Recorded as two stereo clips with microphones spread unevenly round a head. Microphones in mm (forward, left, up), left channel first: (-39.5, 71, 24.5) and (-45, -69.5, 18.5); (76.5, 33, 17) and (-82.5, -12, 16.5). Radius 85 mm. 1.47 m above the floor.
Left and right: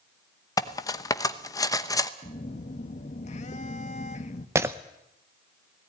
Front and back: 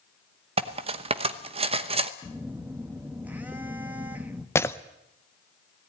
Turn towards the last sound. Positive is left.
turn(degrees=-35)